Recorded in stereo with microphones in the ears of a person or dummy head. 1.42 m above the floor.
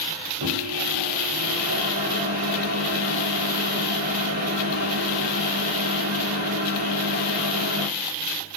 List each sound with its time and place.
0.4 s a microwave: 50° right (ahead or behind), 0.6 m